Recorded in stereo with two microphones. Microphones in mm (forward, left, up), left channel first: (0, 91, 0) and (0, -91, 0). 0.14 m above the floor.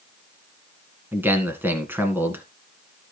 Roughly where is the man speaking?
Centre.